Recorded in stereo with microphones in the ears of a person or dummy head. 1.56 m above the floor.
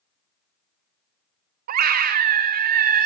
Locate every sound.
1.7 s a scream: 50° right (ahead or behind), 0.5 m